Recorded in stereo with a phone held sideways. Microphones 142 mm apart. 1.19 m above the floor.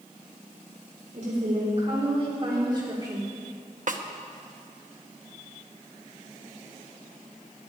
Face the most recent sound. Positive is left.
turn(degrees=-65)  # may be behind; listen again after turning